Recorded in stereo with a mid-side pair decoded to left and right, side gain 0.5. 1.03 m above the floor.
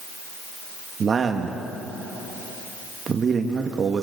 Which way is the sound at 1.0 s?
40° right.